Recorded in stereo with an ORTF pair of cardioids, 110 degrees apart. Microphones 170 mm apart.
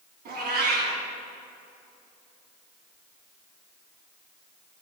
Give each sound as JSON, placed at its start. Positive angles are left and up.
{"t": 0.2, "sound": "a cat meowing", "azimuth_deg": -65, "distance_m": 4.0}